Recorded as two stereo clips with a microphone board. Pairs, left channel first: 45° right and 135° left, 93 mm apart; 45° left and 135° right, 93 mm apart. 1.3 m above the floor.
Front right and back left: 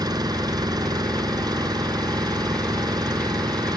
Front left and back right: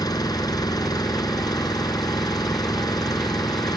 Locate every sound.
0.0 s an engine running: 90° left